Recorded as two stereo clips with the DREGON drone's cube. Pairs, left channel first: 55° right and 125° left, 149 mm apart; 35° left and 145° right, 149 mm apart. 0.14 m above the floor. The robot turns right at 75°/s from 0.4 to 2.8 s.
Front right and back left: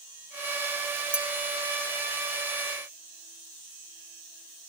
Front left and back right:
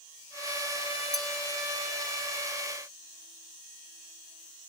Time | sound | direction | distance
1.1 | a clink | 50° left | 0.7 m